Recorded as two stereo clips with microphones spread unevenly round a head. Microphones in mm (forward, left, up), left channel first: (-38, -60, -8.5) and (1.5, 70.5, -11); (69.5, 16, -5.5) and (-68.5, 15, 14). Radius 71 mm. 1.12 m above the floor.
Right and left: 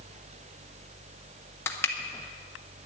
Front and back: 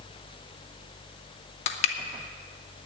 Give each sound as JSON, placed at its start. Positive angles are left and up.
{"t": 1.7, "sound": "crushing", "azimuth_deg": -30, "distance_m": 0.9}